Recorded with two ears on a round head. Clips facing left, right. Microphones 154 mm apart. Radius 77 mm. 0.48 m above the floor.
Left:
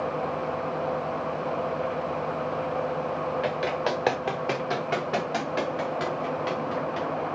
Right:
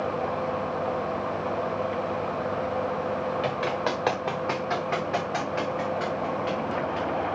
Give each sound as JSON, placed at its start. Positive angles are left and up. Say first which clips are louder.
{"t": 3.4, "sound": "running footsteps", "louder": "even", "side_deg": 15, "distance_m": 2.5}